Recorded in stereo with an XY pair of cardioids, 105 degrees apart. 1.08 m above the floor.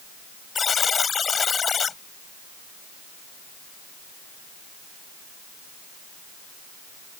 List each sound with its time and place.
0.6 s a buzzer: 40° left